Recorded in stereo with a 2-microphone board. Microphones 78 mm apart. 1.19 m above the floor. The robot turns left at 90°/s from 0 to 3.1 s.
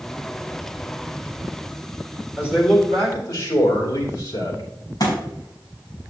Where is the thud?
50° left (ahead or behind), 5 m.